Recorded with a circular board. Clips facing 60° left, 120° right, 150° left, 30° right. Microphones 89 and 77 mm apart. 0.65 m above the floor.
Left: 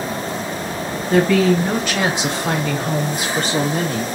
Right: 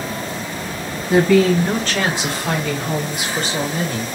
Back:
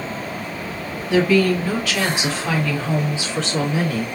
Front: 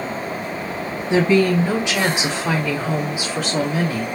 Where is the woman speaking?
60° right, 1.1 m; by 4.1 s 55° left, 1.7 m.